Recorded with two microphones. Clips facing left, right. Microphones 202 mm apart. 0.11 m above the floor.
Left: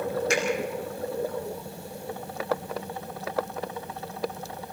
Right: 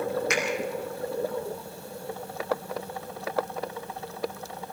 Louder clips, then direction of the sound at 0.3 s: Left 2 dB; 30° left (ahead or behind).